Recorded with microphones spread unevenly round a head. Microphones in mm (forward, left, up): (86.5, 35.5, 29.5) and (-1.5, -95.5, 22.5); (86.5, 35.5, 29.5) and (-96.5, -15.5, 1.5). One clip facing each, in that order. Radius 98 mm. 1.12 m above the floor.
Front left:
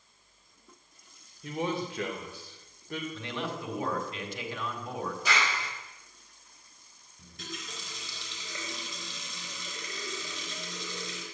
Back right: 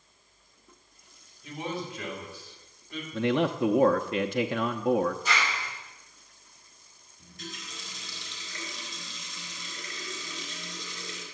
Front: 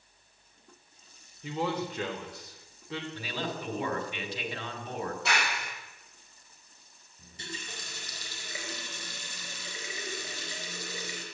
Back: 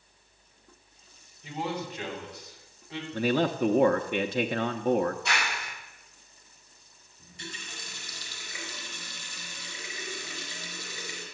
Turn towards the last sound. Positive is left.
turn(degrees=75)